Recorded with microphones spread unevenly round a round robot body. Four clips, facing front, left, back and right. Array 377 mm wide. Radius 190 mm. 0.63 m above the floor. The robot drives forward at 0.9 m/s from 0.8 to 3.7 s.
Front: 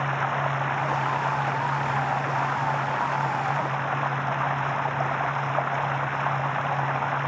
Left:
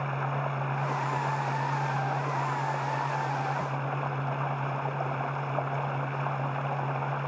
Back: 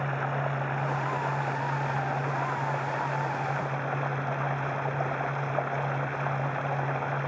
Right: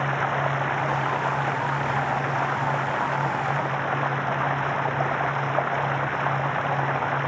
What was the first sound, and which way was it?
Running water, 70° right.